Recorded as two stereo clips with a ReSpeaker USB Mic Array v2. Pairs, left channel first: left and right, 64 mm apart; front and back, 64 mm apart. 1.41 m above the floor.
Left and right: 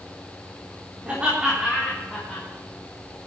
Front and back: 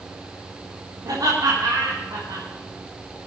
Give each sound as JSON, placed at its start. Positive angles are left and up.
{"t": 1.1, "sound": "laughter", "azimuth_deg": -160, "distance_m": 3.5}